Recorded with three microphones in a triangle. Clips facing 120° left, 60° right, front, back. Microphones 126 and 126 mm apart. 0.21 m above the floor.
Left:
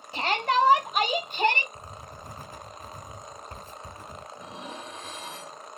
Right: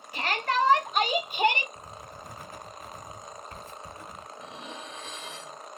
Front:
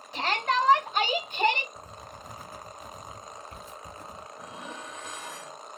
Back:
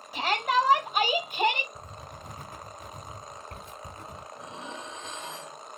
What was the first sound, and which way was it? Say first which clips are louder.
A shout: left 3 dB, back 1 dB; 105° left.